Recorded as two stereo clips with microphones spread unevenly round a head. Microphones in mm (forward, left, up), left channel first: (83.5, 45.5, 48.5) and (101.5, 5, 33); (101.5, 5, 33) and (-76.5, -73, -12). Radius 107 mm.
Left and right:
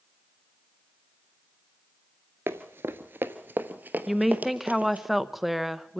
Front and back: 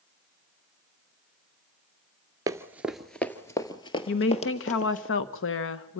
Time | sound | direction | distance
2.5 | running footsteps | 75° right | 1.0 m
4.1 | a woman speaking | 5° left | 1.0 m